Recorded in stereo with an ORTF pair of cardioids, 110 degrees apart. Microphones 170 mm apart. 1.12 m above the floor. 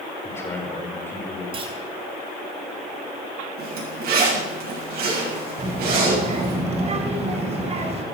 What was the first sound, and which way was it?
A man speaking, 15° left.